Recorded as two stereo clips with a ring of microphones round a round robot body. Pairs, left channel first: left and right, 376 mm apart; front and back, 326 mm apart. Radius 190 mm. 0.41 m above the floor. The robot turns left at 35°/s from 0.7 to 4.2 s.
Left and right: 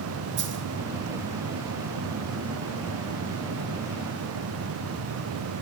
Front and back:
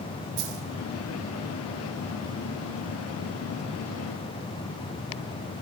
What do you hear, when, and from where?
0.4 s a dropped coin: 150° right, 3.5 m